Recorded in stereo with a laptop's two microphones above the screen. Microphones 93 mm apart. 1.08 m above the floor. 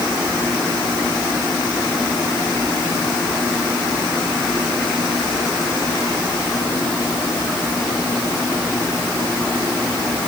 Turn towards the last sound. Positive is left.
No sound to turn to.